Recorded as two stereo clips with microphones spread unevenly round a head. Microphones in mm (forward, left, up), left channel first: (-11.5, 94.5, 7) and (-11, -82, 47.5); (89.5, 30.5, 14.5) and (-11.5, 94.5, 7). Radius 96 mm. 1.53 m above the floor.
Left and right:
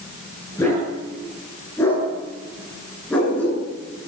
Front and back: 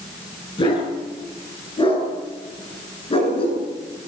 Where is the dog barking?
10° left, 9.5 m; by 3.6 s 5° left, 8 m.